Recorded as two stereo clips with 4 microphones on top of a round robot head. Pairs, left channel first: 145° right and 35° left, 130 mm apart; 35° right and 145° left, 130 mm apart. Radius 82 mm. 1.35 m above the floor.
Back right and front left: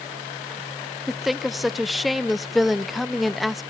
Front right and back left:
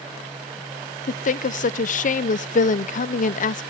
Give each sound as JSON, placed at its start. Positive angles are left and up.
{"t": 1.1, "sound": "a woman speaking", "azimuth_deg": -55, "distance_m": 0.6}